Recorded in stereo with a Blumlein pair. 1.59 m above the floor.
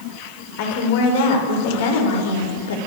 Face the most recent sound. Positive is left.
turn(degrees=60)